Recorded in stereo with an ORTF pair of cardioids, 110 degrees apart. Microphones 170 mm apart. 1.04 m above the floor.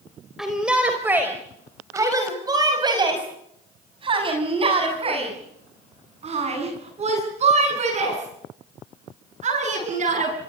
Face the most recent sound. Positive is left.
turn(degrees=-45)